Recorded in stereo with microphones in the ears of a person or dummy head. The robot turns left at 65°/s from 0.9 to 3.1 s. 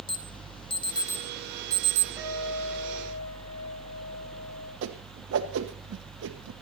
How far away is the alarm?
About 1.3 m.